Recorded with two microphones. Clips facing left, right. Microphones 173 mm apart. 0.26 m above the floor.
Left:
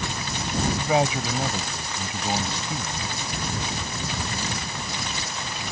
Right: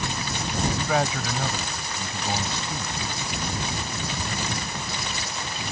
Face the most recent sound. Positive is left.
turn(degrees=15)  # may be behind; listen again after turning